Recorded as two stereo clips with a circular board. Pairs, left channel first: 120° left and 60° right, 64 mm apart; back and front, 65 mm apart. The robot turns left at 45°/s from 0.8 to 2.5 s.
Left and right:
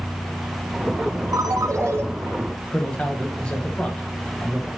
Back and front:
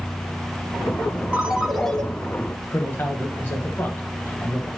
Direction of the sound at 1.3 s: 70° right.